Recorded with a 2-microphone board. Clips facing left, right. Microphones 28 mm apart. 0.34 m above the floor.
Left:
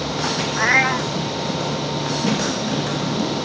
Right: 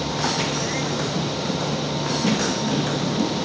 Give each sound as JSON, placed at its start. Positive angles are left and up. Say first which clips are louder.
{"t": 0.6, "sound": "a cat meowing", "louder": "left 8 dB", "side_deg": 60}